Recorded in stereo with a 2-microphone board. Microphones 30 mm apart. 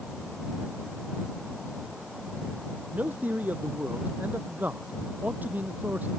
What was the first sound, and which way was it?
A man speaking, 80° right.